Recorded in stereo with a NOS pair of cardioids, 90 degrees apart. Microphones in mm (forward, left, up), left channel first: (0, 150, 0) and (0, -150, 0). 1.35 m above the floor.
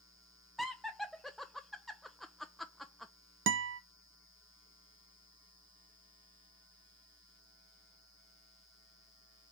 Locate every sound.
0.6 s laughter: straight ahead, 0.6 m
3.5 s a guitar: 40° right, 0.6 m